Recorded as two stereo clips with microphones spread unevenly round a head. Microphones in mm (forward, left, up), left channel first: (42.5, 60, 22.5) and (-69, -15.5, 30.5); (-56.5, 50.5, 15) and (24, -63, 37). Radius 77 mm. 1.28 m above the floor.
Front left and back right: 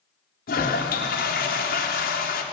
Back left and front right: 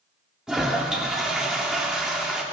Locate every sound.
0.5 s a toilet flushing: 30° left, 3 m